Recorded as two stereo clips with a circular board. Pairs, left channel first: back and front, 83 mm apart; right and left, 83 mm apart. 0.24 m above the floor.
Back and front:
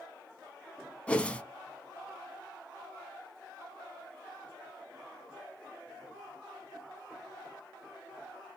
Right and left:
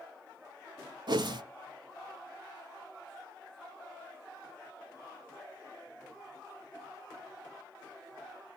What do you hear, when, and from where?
1.1 s a whoosh: 105° left, 0.6 m